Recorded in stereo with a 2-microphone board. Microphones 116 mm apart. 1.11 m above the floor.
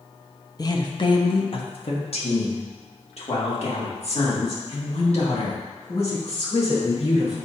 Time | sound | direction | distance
0.6 | a woman speaking | 35° left (ahead or behind) | 0.8 m